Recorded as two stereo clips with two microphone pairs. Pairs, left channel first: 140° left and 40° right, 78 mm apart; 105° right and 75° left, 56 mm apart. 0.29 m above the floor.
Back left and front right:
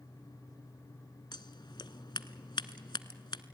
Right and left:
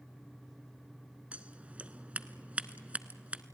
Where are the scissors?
140° left, 0.8 m.